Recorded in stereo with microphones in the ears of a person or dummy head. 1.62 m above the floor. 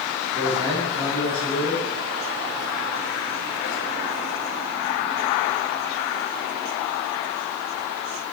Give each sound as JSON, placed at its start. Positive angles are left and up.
{"t": 0.3, "sound": "a man speaking", "side_deg": -20, "distance_m": 3.5}